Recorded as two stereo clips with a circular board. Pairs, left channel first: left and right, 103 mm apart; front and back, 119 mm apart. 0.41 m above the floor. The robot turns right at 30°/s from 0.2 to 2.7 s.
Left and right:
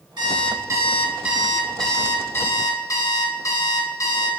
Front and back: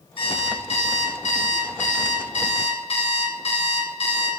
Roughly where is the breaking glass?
No breaking glass in this recording.